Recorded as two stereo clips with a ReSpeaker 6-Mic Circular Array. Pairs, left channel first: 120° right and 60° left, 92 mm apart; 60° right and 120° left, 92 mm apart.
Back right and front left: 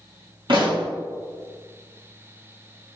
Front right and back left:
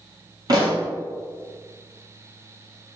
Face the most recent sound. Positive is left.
turn(degrees=80)